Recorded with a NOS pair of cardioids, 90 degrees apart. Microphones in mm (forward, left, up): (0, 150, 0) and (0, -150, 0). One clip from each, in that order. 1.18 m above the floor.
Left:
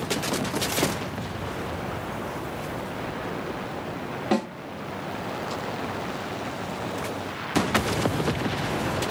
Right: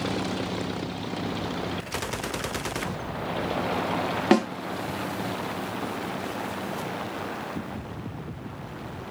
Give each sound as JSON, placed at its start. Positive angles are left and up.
{"t": 4.3, "sound": "a snare drum", "azimuth_deg": -55, "distance_m": 1.4}